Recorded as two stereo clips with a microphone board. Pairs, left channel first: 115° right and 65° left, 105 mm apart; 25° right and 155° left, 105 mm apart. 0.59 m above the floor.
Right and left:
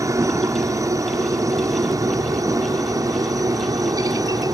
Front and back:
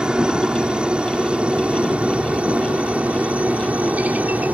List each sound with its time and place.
0.0 s a helicopter: 85° left; by 4.5 s 90° left